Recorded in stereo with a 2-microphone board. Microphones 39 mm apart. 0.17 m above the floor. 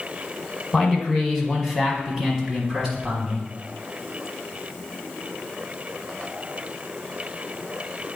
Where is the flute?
I don't hear a flute.